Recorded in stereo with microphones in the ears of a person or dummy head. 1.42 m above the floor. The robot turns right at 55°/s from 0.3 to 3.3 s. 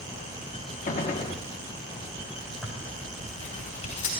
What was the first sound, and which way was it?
A gunshot, 120° left.